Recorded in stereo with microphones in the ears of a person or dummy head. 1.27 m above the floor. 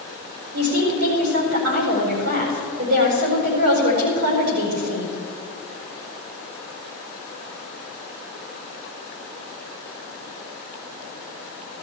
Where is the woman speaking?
80° right, 5 m.